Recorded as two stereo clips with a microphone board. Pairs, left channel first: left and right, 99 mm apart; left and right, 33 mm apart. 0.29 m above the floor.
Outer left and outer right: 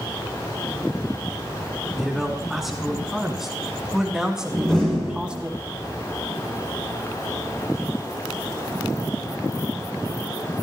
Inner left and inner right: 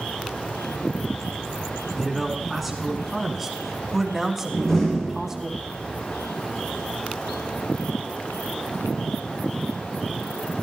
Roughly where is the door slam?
Centre.